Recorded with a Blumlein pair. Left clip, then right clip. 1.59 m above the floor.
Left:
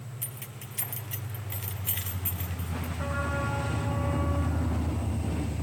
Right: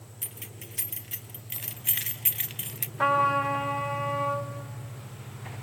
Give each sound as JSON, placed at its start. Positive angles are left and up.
{"t": 0.2, "sound": "keys jangling", "azimuth_deg": -5, "distance_m": 1.8}
{"t": 3.0, "sound": "a trumpet", "azimuth_deg": -60, "distance_m": 5.5}